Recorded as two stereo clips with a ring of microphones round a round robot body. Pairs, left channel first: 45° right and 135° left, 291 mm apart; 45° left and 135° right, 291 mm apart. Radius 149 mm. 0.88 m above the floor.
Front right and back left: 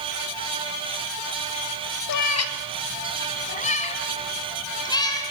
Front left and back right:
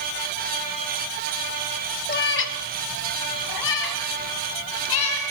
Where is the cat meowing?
15° right, 1.3 m; by 5.2 s 35° left, 3.5 m.